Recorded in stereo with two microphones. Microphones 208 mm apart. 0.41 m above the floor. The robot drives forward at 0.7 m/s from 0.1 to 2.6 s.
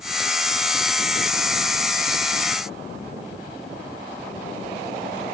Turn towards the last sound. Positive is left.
No sound to turn to.